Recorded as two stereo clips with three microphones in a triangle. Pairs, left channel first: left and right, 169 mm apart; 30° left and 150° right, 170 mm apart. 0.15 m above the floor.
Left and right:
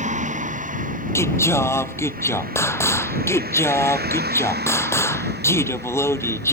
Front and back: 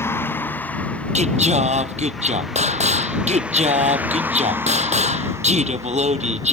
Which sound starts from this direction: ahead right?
A vehicle, at 0.0 s.